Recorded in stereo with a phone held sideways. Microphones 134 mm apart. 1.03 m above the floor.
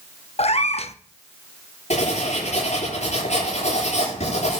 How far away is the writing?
About 9.5 m.